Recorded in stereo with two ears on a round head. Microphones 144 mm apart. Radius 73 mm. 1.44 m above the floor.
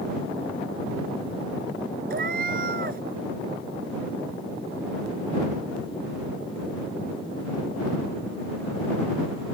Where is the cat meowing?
55° right (ahead or behind).